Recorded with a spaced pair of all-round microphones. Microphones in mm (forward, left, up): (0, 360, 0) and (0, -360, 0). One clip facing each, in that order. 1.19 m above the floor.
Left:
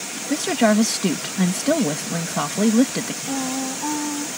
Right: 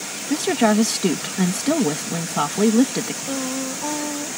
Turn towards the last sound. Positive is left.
turn(degrees=-15)  # may be behind; listen again after turning